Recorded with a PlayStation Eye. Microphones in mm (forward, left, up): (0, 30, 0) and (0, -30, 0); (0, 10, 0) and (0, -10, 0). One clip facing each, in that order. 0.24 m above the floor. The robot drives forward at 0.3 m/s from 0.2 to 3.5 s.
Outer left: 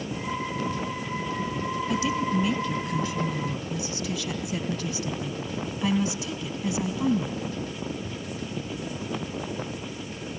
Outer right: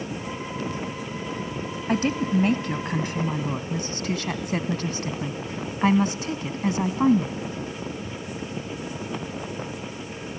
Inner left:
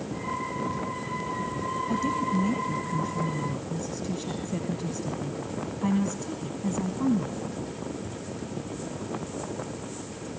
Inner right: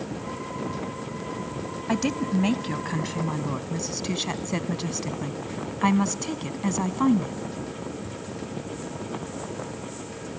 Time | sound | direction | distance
1.9 | a woman speaking | 50° right (ahead or behind) | 1.4 m